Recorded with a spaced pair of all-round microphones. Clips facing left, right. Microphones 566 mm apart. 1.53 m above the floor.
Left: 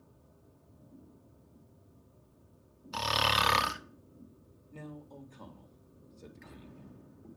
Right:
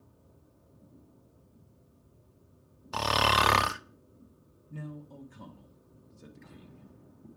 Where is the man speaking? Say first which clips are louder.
Right 3 dB; 35° right (ahead or behind), 1.4 m.